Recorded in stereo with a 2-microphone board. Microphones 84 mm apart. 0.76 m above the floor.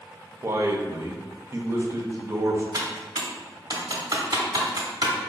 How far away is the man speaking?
About 0.5 m.